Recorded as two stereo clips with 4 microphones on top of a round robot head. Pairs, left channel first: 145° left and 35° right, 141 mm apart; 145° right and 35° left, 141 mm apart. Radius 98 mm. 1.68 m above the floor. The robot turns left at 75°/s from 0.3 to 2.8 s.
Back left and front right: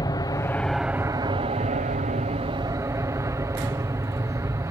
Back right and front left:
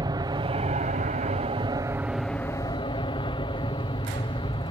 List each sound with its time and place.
0.0 s an aircraft: 90° left; by 4.7 s 100° right